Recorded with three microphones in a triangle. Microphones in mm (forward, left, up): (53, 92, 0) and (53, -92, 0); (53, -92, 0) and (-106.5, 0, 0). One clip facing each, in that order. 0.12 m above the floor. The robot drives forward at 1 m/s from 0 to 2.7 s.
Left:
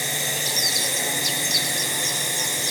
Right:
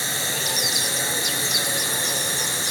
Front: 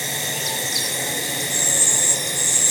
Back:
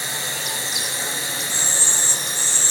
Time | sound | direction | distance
0.0 | a drone | 30° left | ?